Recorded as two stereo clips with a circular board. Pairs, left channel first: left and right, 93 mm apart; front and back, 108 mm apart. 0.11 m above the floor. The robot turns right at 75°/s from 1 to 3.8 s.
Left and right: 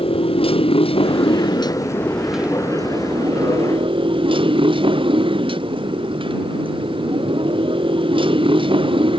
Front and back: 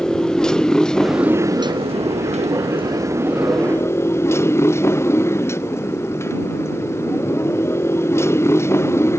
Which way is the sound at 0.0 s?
85° left.